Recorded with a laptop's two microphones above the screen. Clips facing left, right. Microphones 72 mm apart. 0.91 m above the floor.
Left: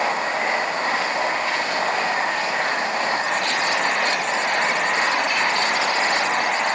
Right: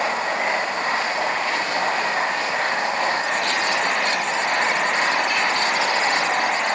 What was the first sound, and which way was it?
Only background noise.